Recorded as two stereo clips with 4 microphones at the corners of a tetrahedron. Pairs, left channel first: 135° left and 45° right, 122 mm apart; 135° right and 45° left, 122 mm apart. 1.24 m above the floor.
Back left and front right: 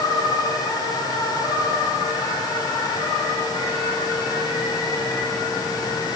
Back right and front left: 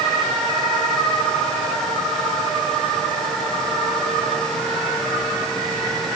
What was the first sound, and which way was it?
Only background noise.